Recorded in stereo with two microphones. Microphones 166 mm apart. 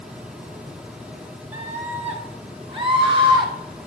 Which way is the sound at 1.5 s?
45° right (ahead or behind).